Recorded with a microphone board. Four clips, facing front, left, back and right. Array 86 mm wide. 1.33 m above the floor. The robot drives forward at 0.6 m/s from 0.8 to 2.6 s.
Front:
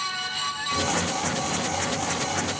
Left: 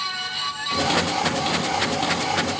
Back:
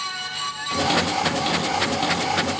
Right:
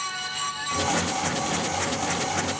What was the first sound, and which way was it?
Only background noise.